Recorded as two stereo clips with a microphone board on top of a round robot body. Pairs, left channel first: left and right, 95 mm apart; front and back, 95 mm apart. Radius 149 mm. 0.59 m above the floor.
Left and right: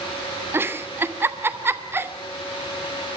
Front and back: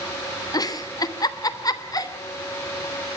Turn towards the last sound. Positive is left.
turn(degrees=-30)